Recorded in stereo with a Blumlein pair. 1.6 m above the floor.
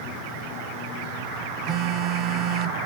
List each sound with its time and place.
1.7 s a phone buzzing: 35° right, 0.6 m